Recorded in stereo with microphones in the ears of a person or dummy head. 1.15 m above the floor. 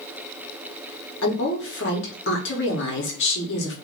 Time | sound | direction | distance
1.2 | a woman speaking | 55° left (ahead or behind) | 1.0 m